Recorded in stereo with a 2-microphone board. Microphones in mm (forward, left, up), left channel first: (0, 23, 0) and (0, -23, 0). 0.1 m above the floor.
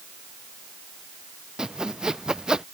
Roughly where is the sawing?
Centre.